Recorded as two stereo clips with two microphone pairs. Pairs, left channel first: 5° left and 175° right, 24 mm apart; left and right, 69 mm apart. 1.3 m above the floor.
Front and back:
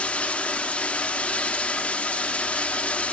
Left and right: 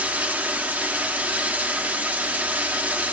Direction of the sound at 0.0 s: 25° right.